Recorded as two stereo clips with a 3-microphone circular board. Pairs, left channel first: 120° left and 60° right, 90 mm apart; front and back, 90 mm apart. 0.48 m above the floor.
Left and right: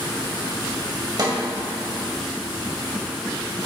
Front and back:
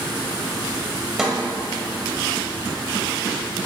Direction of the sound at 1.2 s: 95° right.